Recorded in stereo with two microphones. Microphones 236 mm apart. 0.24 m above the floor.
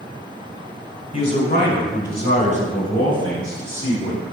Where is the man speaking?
35° left (ahead or behind), 1.6 m; by 4.2 s 65° left (ahead or behind), 3 m.